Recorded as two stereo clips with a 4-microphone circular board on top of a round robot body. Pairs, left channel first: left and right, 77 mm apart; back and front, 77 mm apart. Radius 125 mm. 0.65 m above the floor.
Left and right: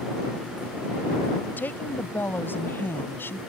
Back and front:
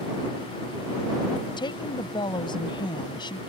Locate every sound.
1.6 s a woman speaking: 155° left